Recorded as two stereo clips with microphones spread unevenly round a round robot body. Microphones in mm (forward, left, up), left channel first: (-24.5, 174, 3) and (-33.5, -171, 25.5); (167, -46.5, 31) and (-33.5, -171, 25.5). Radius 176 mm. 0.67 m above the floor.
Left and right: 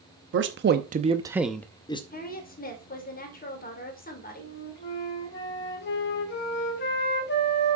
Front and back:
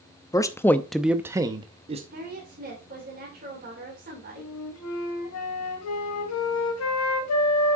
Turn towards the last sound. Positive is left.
turn(degrees=25)